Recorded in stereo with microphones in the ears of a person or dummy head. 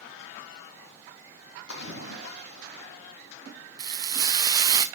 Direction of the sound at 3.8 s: 25° right (ahead or behind).